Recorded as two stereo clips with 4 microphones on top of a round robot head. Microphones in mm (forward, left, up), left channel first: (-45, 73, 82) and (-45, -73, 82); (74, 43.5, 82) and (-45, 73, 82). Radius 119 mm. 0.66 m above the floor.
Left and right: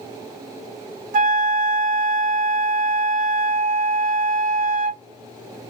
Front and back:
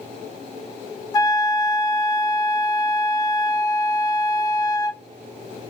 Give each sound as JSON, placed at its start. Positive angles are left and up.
{"t": 1.1, "sound": "a flute", "azimuth_deg": -70, "distance_m": 0.6}